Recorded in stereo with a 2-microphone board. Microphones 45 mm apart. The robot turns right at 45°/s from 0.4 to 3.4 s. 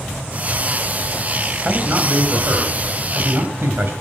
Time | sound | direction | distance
1.6 | a man speaking | 150° right | 3.5 m